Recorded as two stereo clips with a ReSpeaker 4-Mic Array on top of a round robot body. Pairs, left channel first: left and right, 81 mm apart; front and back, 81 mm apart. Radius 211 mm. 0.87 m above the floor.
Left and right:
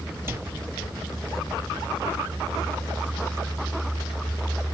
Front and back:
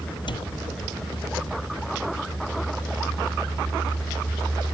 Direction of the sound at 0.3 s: 25° right.